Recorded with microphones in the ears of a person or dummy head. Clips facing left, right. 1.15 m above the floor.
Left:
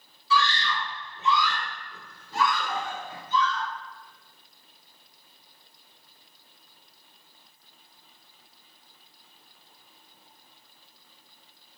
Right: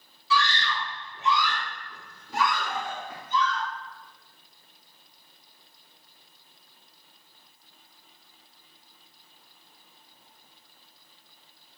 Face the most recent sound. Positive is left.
turn(degrees=-55)  # may be behind; listen again after turning